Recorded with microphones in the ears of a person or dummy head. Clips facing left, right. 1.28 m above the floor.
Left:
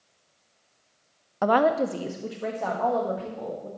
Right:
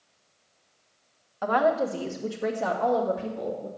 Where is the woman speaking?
55° left (ahead or behind), 0.6 m; by 3.7 s 20° right (ahead or behind), 2.5 m.